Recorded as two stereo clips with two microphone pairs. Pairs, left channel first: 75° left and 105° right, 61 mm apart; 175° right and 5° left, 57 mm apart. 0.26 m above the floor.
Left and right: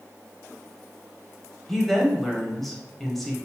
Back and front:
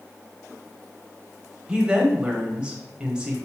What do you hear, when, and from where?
1.7 s a woman speaking: 5° right, 0.9 m